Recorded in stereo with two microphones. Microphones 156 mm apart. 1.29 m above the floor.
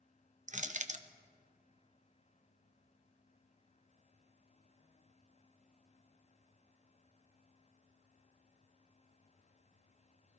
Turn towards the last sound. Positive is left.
turn(degrees=-50)  # may be behind; listen again after turning